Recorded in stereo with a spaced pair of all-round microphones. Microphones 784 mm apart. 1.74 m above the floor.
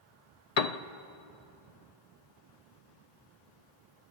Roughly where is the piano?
Left.